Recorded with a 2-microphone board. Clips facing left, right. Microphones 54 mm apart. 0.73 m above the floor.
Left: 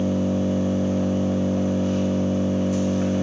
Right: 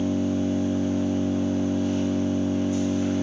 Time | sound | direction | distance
0.0 | an engine running | 85° left | 1.3 m